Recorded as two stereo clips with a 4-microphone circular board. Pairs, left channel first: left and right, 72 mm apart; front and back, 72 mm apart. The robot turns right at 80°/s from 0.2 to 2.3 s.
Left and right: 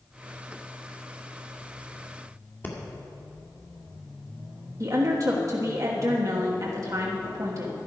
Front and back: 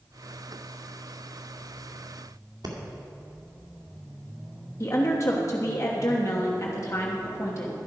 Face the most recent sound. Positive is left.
turn(degrees=-50)